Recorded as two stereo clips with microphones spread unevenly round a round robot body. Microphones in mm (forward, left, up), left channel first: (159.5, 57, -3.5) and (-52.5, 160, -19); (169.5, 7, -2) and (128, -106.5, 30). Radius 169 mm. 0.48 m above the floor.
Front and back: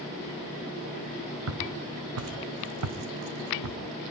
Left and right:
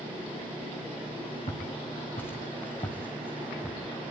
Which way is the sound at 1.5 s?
135° left.